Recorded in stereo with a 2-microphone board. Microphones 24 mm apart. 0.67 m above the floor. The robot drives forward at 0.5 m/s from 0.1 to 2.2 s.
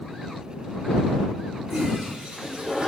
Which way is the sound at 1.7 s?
35° right (ahead or behind).